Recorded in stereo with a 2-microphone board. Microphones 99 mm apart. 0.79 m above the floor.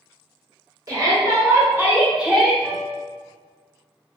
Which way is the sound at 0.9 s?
35° right (ahead or behind).